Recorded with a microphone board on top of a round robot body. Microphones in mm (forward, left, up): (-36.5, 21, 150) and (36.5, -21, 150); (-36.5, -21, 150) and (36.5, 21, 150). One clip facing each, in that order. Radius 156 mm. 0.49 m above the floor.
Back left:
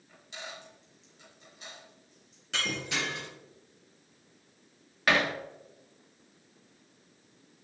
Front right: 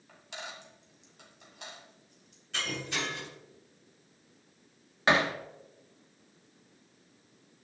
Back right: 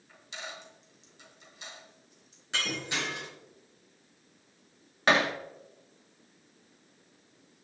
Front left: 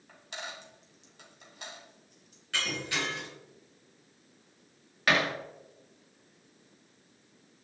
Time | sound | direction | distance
0.1 | a dropped coin | 5° right | 2 m
2.5 | breaking glass | 140° left | 4.5 m
5.1 | hammering | 95° right | 1.2 m